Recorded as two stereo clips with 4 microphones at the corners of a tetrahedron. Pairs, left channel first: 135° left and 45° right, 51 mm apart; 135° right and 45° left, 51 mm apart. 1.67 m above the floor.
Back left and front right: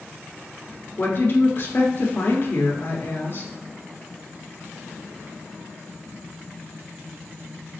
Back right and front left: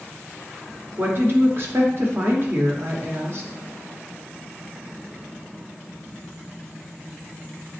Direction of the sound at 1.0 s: 85° left.